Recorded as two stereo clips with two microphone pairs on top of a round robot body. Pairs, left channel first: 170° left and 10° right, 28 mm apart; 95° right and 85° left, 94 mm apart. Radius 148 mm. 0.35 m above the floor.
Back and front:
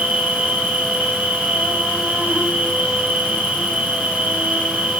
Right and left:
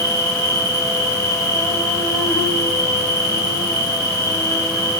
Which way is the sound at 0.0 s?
35° right.